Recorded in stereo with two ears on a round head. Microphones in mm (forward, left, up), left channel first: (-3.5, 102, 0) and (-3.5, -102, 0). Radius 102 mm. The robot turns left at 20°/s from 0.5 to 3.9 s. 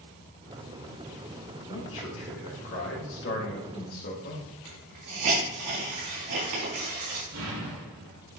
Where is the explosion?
70° right (ahead or behind), 3 m.